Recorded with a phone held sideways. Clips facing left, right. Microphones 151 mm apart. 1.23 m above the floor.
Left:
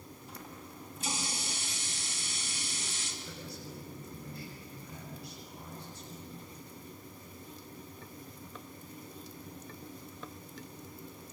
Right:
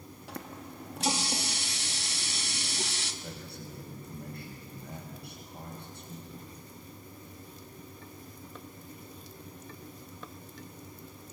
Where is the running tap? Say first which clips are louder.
Right 7 dB; 80° right, 1.6 m.